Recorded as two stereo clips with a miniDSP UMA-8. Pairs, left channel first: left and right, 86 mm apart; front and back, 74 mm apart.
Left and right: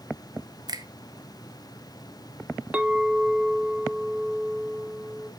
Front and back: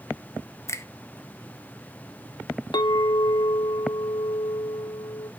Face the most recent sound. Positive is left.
turn(degrees=-15)